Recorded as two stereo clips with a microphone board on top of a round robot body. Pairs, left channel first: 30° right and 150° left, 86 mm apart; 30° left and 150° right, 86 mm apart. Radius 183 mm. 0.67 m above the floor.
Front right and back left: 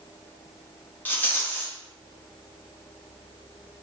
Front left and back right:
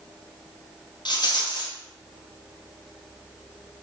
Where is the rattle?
35° left, 1.3 m.